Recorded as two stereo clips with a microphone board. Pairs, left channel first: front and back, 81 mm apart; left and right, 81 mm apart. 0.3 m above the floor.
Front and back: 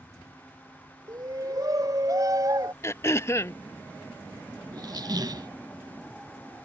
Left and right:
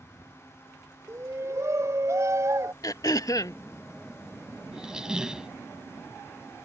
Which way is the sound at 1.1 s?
140° right.